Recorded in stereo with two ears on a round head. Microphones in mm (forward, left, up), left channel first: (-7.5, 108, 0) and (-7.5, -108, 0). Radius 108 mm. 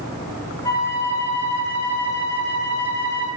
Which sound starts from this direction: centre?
A flute, at 0.6 s.